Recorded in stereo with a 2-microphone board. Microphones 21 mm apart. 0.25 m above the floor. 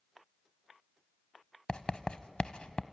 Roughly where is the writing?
Left.